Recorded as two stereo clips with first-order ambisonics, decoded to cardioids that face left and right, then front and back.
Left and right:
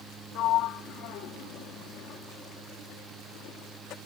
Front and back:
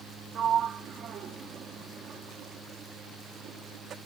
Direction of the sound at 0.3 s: 125° left.